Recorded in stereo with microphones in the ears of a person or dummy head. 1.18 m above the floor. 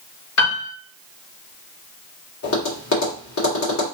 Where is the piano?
65° left (ahead or behind), 1.4 m.